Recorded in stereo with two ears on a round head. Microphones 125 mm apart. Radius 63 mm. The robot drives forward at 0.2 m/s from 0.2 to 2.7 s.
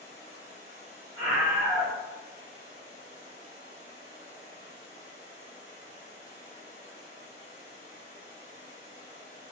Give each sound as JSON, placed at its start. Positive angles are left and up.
{"t": 0.0, "sound": "running water", "side_deg": -50, "distance_m": 1.4}
{"t": 1.2, "sound": "a scream", "side_deg": -45, "distance_m": 0.7}